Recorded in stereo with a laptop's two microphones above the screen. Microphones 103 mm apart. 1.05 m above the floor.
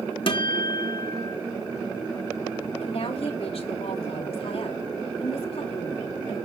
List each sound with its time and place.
0.3 s a guitar: 60° left (ahead or behind), 1.5 m
2.8 s a woman speaking: 75° left (ahead or behind), 2.5 m